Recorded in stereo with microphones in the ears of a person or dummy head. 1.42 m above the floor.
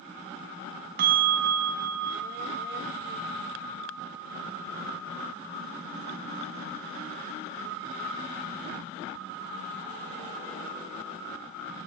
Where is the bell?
55° right (ahead or behind), 4.5 m.